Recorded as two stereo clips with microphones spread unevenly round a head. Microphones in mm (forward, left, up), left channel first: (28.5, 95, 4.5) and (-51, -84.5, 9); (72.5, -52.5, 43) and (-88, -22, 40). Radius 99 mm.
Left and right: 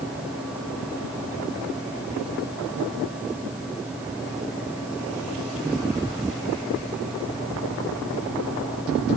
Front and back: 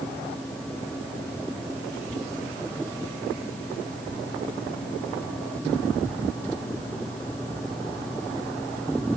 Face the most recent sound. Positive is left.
No sound to turn to.